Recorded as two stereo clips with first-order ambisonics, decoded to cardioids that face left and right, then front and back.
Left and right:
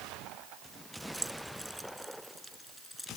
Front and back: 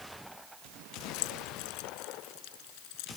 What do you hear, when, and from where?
1.1 s keys jangling: 5° right; by 3.1 s 5° left